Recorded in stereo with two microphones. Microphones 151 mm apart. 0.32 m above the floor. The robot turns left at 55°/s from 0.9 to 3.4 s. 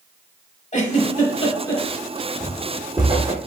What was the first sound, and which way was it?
A giggle, 50° left (ahead or behind).